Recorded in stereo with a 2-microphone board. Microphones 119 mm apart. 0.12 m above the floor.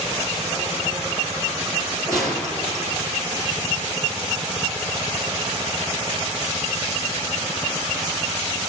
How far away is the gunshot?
About 1.7 m.